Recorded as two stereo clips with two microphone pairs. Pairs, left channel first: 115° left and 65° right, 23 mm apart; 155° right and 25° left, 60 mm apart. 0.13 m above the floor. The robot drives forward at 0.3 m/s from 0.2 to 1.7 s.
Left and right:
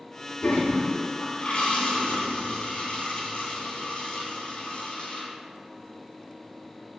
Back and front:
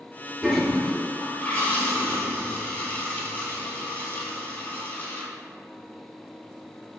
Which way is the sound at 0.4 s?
110° left.